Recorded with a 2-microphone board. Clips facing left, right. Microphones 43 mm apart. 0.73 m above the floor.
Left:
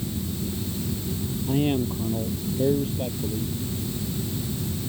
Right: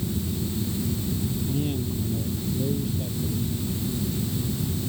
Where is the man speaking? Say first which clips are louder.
Left 4 dB; 40° left (ahead or behind).